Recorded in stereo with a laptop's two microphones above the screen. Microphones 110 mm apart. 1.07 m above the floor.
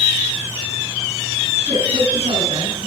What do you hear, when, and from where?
1.7 s a woman speaking: 85° right, 9.5 m